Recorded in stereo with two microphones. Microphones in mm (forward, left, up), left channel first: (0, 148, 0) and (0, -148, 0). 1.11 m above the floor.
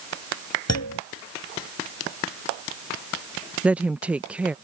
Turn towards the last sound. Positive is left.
turn(degrees=-5)  # may be behind; listen again after turning